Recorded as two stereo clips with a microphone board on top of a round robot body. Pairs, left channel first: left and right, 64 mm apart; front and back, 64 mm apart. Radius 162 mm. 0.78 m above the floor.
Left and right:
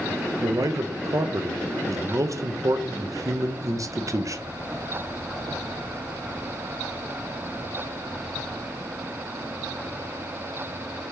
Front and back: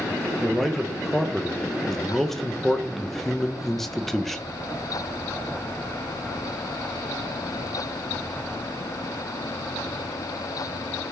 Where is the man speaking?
85° right, 0.6 m.